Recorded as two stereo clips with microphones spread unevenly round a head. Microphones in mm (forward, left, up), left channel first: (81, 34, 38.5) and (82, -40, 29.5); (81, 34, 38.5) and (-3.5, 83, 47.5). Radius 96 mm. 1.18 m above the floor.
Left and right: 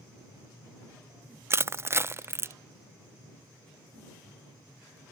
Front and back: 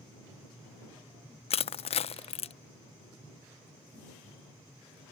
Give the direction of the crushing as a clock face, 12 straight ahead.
1 o'clock.